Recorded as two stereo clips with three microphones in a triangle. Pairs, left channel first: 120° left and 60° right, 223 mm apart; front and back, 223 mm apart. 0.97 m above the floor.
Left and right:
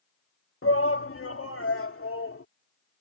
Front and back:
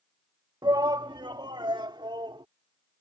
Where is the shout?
110° left.